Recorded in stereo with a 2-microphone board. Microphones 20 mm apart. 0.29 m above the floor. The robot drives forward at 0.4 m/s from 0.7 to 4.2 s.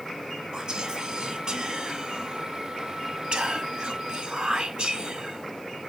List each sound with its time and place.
0.5 s whispering: 45° right (ahead or behind), 2.5 m; by 5.9 s 55° right (ahead or behind), 1.9 m